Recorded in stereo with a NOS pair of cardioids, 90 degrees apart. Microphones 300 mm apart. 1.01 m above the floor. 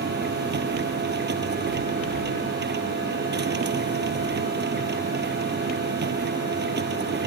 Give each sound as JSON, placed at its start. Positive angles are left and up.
{"t": 0.0, "sound": "a machine running", "azimuth_deg": -35}